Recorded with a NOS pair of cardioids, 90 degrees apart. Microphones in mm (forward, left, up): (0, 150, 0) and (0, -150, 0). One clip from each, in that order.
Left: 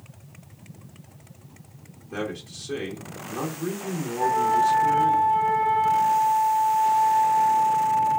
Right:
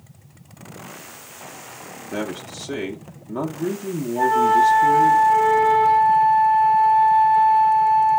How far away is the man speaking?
About 1.0 m.